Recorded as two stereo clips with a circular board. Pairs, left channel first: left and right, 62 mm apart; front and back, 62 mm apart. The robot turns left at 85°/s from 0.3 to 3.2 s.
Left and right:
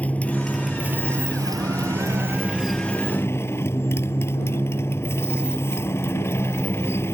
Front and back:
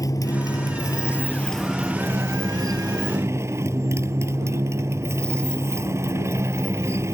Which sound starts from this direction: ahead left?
A motorcycle, at 0.0 s.